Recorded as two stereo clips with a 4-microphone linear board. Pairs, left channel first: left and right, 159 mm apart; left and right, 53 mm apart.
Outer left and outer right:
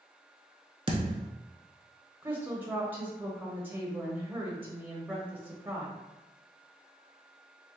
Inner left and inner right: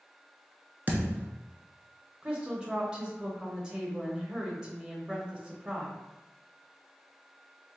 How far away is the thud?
About 0.8 m.